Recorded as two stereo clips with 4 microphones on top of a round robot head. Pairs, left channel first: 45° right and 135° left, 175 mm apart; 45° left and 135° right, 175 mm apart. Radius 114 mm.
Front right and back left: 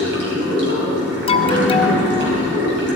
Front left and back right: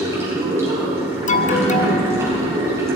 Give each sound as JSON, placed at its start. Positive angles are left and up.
{"t": 0.0, "sound": "running water", "azimuth_deg": 150, "distance_m": 3.5}
{"t": 1.3, "sound": "an alarm", "azimuth_deg": 5, "distance_m": 0.8}